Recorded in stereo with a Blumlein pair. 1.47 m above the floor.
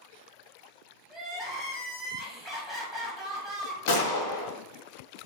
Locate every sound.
1.1 s crying: 5° left, 1.0 m
3.9 s a gunshot: 50° left, 0.7 m